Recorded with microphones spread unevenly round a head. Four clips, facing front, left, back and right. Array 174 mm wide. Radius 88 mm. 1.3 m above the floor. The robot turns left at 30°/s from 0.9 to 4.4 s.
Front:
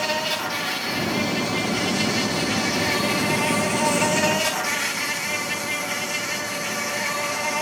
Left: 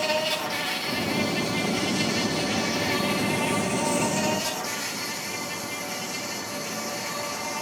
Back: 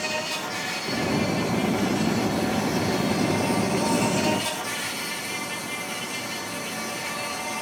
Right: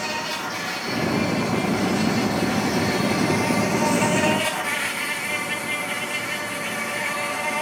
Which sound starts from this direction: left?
An insect, at 0.0 s.